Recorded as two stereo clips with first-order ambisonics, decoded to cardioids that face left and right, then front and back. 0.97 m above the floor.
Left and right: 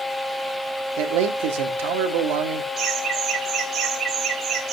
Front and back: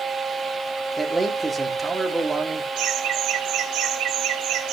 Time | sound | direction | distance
1.0 | a man speaking | 100° right | 2.5 m
2.8 | laughter | 155° right | 3 m